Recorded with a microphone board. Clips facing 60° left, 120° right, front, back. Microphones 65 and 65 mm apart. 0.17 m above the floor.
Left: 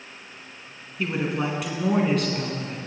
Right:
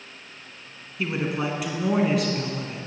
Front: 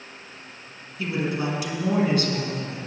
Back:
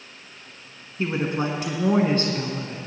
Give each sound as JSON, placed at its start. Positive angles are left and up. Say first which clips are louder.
{"t": 1.0, "sound": "a woman speaking", "louder": "left 1 dB, back 2 dB", "azimuth_deg": 155, "distance_m": 1.6}